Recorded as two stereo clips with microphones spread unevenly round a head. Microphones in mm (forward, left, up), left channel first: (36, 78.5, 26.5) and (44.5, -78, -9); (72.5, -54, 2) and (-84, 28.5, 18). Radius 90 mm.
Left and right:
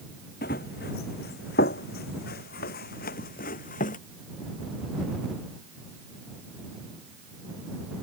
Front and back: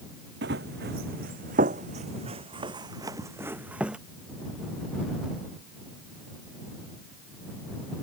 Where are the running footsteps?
125° left; by 4.0 s 70° left.